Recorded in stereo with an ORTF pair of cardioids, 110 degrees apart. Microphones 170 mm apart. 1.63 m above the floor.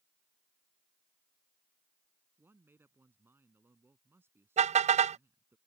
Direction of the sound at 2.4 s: 15° right.